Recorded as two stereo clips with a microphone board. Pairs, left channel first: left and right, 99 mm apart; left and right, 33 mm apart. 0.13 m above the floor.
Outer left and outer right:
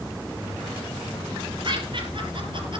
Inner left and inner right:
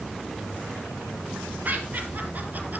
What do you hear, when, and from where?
1.6 s laughter: 55° right (ahead or behind), 3.5 m